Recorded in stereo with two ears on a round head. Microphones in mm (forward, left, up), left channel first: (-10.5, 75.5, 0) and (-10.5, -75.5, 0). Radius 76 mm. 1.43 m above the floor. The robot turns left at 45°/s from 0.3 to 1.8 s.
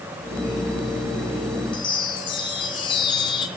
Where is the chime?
30° left (ahead or behind), 2.5 m.